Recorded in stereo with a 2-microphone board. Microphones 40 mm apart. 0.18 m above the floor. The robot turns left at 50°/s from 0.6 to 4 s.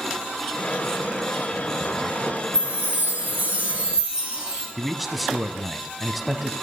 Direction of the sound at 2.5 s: 85° right.